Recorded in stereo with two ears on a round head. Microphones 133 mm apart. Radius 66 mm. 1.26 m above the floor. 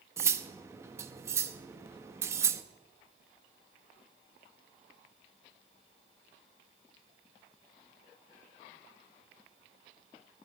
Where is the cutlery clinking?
20° right (ahead or behind), 0.6 m.